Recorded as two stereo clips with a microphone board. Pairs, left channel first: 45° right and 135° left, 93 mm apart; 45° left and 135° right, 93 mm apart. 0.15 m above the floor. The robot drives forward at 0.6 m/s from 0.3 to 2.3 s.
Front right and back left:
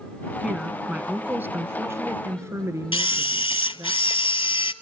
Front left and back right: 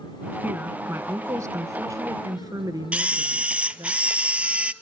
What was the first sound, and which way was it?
A woman speaking, 150° right.